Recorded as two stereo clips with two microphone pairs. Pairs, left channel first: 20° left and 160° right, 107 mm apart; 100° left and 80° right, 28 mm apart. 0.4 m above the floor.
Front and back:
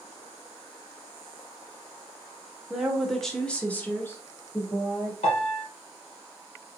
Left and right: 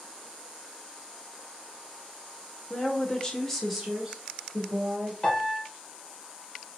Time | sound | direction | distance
2.7 | a woman speaking | 115° left | 1.5 m
5.2 | a piano | 25° left | 2 m